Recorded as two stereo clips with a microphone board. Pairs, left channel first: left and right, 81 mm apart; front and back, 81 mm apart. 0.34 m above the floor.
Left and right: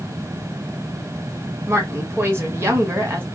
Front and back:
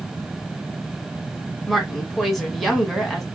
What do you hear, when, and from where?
1.7 s a woman speaking: 90° right, 1.4 m